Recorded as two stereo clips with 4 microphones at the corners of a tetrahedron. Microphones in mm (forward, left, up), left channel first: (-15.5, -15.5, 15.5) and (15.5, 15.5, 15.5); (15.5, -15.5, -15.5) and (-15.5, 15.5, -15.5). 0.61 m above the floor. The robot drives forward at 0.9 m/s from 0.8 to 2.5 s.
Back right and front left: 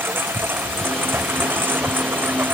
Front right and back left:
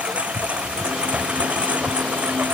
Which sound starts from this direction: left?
A lawn mower, at 0.0 s.